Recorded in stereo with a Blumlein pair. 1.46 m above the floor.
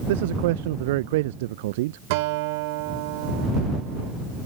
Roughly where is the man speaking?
Ahead right.